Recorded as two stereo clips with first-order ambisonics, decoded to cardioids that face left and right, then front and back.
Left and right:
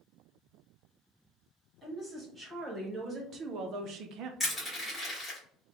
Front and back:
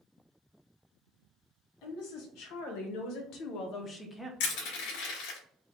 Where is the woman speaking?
10° right, 1.6 m; by 4.3 s 95° right, 0.6 m.